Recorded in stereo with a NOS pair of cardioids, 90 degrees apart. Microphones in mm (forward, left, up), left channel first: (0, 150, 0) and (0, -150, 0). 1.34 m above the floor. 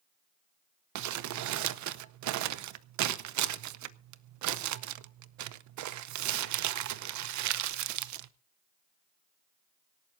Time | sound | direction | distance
0.9 | crumpling | 70° right | 0.8 m